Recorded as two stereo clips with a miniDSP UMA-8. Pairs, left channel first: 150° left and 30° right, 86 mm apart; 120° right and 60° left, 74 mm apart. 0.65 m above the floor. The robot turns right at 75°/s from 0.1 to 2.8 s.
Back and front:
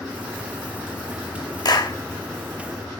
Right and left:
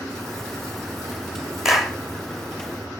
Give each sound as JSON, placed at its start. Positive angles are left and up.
{"t": 1.6, "sound": "a clap", "azimuth_deg": 145, "distance_m": 1.2}